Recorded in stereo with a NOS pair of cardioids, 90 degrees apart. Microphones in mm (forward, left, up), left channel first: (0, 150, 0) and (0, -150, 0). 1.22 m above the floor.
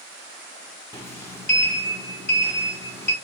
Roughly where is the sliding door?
Ahead.